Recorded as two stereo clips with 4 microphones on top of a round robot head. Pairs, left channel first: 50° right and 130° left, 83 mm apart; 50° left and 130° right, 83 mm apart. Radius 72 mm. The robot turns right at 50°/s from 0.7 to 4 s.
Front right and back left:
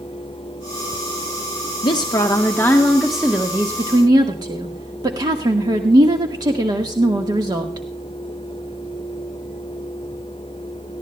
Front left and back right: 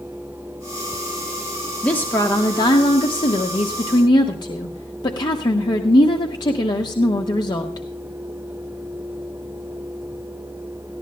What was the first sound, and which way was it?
A woman speaking, 25° right.